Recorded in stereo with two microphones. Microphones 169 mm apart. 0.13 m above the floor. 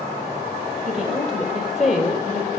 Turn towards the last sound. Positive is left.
turn(degrees=0)  # may be behind; listen again after turning